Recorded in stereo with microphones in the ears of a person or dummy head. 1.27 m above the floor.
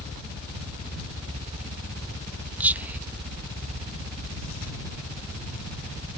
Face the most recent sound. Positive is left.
turn(degrees=-5)  # may be behind; listen again after turning